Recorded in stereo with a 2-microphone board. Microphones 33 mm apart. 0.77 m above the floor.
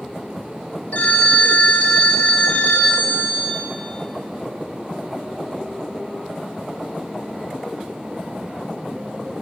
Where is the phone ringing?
50° left (ahead or behind), 3 m.